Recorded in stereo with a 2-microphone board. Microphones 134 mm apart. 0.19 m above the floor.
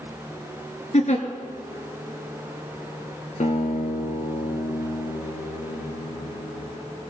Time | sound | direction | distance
0.9 | a giggle | 60° left (ahead or behind) | 1.4 m
3.4 | a guitar | 65° left (ahead or behind) | 1.1 m